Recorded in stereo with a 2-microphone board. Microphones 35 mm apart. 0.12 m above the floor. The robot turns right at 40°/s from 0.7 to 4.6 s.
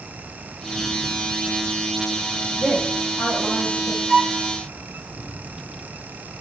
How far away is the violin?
About 8 m.